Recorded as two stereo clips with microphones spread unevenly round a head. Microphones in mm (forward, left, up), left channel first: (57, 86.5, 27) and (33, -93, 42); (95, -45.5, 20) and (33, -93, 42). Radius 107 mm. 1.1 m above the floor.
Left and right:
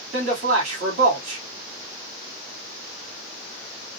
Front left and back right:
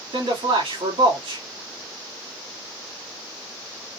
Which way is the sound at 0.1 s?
155° right.